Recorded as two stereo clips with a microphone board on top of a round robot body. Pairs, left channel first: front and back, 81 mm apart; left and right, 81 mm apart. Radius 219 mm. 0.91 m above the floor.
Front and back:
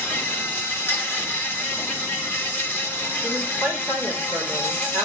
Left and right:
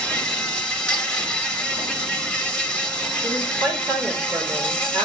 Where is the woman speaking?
110° right, 4.5 m.